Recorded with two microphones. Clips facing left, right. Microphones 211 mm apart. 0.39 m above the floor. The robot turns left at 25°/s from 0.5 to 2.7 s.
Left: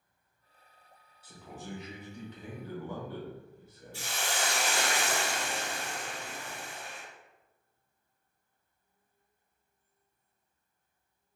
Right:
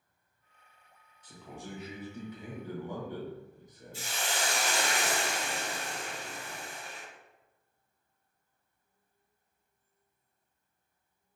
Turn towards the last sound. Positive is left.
turn(degrees=80)